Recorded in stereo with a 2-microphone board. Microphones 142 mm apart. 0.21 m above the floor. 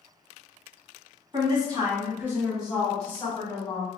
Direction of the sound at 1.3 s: 35° right (ahead or behind).